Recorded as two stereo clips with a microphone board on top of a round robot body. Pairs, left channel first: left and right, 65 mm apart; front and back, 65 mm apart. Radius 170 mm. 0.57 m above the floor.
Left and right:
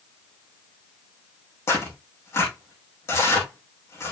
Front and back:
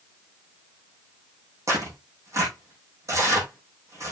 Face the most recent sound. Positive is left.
turn(degrees=140)